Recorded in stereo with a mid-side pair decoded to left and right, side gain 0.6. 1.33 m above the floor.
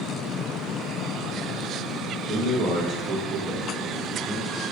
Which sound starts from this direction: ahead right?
A man speaking, at 2.3 s.